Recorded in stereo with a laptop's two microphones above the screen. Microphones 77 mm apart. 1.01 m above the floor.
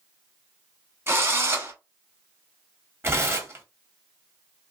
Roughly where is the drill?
Right.